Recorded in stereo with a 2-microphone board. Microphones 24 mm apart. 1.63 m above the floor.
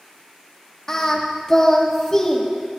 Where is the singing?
25° left (ahead or behind), 1.7 m.